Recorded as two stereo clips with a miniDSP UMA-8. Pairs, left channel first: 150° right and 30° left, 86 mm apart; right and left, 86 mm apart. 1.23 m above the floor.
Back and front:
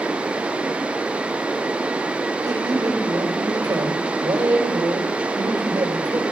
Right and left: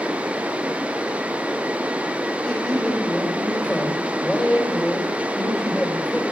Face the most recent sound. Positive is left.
turn(degrees=-10)